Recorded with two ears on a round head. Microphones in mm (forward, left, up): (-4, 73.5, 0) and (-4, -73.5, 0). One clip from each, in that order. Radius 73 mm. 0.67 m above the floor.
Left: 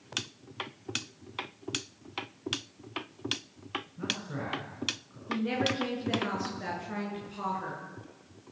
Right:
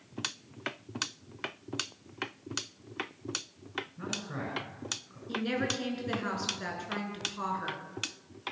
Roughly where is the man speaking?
Right.